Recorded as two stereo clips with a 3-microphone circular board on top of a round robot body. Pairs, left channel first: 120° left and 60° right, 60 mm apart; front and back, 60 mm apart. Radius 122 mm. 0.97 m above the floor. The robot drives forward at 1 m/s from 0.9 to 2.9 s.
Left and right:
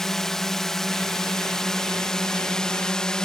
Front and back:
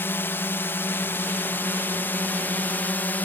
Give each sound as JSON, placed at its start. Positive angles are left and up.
{"t": 0.0, "sound": "a drone", "azimuth_deg": 40}